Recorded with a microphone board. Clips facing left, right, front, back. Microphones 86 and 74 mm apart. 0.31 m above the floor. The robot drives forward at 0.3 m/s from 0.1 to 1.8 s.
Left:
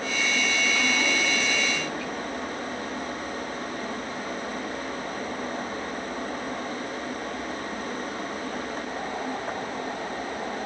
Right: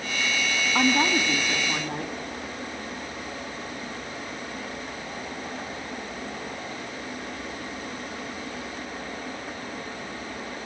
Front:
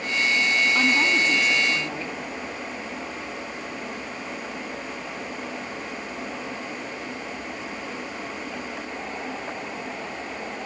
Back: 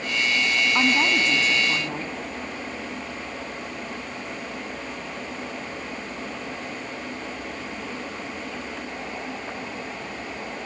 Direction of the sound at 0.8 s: 125° right.